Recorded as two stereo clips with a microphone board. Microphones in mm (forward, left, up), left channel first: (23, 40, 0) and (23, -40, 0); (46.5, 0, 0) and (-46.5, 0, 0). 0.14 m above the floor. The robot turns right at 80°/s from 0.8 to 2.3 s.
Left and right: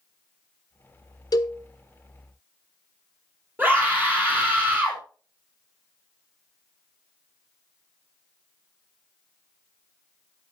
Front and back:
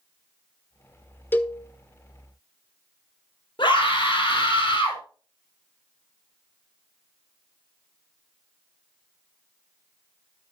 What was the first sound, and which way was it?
A cowbell, 65° left.